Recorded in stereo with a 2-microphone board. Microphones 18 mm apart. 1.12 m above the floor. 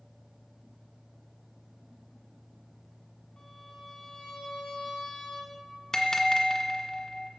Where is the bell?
40° left (ahead or behind), 1.3 m.